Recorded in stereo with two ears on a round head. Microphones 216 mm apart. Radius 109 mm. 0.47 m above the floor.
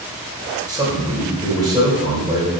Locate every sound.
0.7 s a man speaking: 20° right (ahead or behind), 2 m